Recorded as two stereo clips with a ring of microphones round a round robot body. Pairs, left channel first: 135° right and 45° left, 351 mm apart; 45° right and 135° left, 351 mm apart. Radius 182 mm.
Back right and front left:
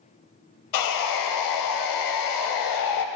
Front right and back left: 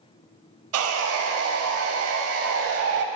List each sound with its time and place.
0.7 s sawing: 170° right, 0.5 m